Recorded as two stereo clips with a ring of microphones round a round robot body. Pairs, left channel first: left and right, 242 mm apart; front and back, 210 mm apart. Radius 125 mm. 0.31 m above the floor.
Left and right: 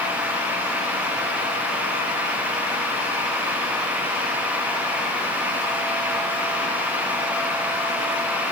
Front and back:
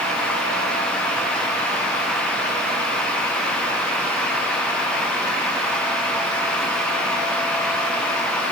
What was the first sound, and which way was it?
Only background noise.